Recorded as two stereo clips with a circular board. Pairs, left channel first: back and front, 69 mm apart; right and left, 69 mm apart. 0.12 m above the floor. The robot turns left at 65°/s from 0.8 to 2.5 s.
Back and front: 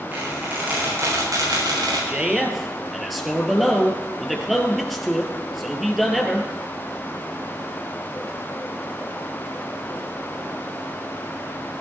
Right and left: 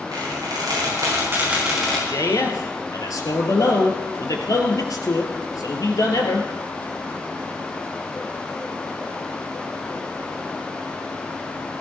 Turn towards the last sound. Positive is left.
turn(degrees=-90)